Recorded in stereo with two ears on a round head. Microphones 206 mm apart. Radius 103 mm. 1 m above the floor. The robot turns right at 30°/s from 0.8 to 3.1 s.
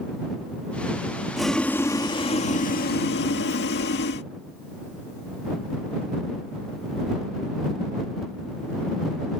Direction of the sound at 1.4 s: Straight ahead.